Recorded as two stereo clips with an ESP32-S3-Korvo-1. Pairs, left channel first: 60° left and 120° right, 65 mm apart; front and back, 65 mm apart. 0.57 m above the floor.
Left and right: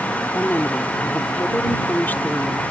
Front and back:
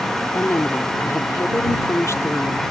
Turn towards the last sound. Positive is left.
turn(degrees=10)